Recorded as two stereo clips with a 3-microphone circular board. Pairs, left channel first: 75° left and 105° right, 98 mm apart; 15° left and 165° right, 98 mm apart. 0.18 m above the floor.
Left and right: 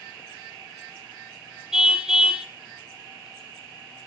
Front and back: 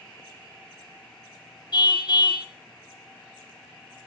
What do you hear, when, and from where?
1.7 s a car horn: 20° right, 2 m